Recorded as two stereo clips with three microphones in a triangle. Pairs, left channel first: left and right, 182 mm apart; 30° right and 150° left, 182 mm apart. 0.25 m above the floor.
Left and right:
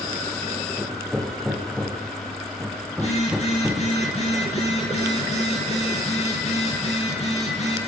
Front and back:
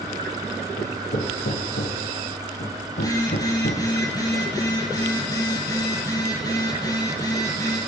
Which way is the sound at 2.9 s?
40° left.